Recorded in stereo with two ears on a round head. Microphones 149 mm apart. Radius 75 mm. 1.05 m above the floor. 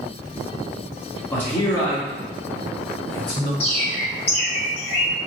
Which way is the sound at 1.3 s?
10° left (ahead or behind).